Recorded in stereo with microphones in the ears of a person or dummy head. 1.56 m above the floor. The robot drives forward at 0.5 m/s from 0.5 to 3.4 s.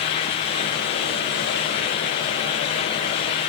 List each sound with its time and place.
Only background noise.